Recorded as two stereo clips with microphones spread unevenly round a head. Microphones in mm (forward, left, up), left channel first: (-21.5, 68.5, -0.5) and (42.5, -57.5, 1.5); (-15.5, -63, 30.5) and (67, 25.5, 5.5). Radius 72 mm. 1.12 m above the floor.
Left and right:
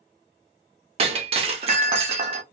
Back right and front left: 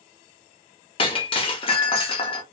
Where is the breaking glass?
105° right, 0.5 m.